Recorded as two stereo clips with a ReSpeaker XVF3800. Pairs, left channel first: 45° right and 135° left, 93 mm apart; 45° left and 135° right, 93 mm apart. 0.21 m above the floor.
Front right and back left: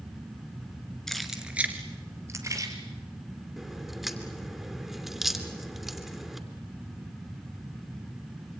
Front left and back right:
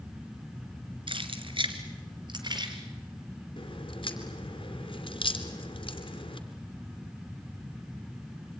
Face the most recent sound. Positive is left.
turn(degrees=50)